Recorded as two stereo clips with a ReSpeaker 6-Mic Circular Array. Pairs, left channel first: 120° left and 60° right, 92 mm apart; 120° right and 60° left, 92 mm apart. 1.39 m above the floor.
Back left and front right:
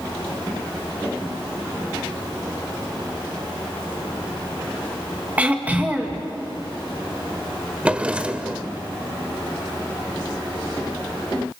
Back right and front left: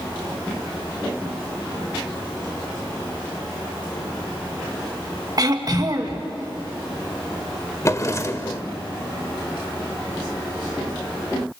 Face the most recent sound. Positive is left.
turn(degrees=-130)